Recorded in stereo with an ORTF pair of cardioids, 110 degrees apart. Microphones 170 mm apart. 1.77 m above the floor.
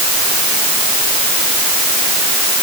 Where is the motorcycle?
I don't hear a motorcycle.